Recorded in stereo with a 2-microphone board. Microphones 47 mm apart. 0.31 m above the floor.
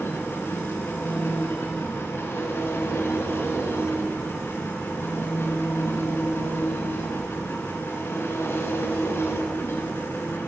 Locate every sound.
0.0 s an engine running: 65° left (ahead or behind), 1.2 m